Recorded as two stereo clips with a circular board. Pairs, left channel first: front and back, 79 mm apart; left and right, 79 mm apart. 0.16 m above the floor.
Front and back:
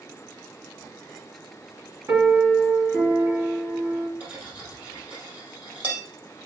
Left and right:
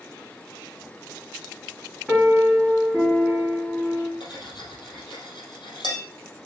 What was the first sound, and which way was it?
A piano, 175° right.